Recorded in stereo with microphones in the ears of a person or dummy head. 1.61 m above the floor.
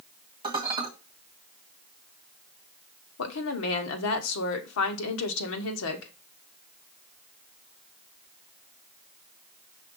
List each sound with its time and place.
0.4 s dishes clattering: 20° right (ahead or behind), 1.7 m
3.2 s a woman speaking: 80° left, 1.1 m